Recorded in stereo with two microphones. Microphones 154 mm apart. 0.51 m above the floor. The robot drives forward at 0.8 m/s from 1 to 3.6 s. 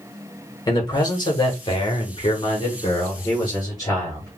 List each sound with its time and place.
0.7 s a man speaking: 25° left (ahead or behind), 1.4 m